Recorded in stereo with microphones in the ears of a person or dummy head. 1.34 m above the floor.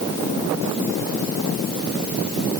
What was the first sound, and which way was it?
Only background noise.